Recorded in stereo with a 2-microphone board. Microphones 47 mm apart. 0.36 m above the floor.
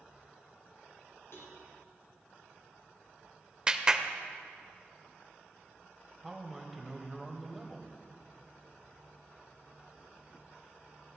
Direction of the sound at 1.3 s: 70° left (ahead or behind).